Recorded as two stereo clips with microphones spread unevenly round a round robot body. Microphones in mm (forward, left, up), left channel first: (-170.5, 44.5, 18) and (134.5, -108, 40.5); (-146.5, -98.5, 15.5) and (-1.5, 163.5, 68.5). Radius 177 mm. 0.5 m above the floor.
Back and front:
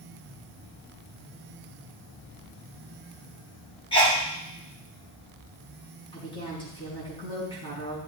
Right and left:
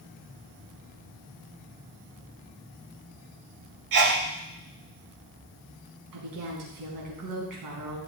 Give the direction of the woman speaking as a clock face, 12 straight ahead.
9 o'clock.